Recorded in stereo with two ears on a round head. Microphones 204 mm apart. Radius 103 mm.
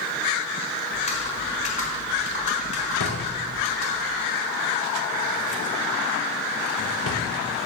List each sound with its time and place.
0.9 s typing on a keyboard: 30° left (ahead or behind), 1.9 m
3.0 s a drawer: 75° left (ahead or behind), 1.6 m